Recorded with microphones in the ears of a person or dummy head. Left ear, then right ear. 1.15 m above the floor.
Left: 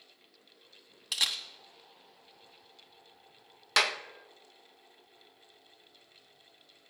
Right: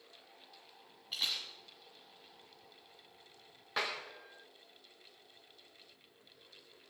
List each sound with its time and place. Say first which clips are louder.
1.1 s a camera shutter: left 5 dB; 40° left (ahead or behind), 1.3 m
3.8 s a clap: left 10 dB; 75° left (ahead or behind), 0.8 m